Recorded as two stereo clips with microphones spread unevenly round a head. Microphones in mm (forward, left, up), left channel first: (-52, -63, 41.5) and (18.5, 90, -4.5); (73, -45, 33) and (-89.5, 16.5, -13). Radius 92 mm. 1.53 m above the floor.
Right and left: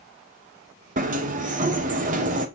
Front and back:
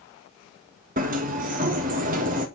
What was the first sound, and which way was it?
A sliding door, 110° left.